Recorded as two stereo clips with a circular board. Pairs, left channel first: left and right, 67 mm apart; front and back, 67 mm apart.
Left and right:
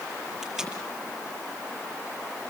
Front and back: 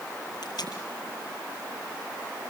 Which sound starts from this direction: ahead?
Tape being pulled, at 0.4 s.